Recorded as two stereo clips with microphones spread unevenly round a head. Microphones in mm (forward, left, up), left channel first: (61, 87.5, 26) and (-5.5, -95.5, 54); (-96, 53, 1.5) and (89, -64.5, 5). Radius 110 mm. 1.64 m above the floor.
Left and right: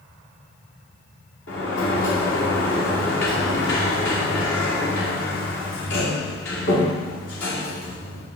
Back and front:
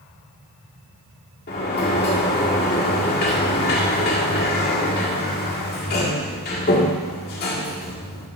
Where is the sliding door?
105° left, 1.9 m.